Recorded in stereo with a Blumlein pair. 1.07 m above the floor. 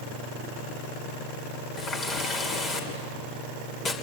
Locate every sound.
1.8 s a running tap: 20° left, 3 m